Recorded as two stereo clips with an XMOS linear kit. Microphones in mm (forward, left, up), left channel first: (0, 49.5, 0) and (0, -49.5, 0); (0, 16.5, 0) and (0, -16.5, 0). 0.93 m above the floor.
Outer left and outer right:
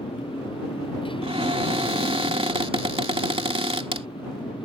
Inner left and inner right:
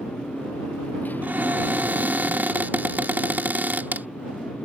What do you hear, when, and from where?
0.0 s a motorcycle: 60° left (ahead or behind); by 4.7 s 55° left (ahead or behind)
1.2 s a cupboard door: 70° right (ahead or behind)